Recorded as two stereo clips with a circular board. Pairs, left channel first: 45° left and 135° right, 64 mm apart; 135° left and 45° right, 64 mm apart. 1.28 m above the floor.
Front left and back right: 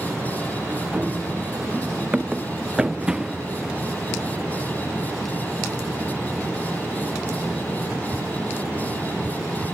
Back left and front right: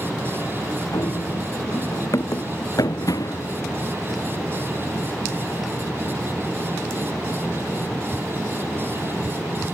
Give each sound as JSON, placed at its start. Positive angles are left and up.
{"t": 0.9, "sound": "running footsteps", "azimuth_deg": 160}